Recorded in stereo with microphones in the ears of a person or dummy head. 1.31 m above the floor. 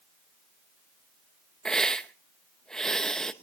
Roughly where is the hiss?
Centre.